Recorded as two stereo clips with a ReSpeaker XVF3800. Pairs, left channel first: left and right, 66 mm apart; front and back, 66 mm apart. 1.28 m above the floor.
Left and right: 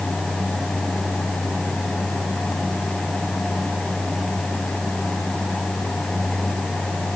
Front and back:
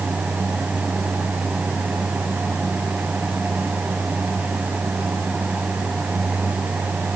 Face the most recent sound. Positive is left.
No sound to turn to.